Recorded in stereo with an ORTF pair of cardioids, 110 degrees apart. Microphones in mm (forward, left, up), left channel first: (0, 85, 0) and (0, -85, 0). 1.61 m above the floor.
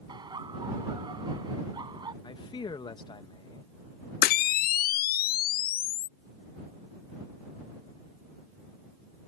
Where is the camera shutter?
65° left.